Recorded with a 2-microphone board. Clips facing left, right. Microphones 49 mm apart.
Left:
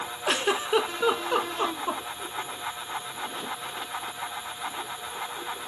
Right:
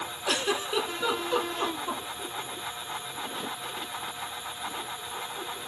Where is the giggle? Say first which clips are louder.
Left 4 dB; 30° left (ahead or behind), 0.6 m.